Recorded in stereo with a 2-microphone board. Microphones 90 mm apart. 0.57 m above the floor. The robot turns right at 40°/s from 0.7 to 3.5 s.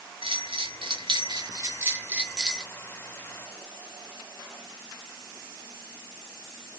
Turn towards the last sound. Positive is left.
turn(degrees=40)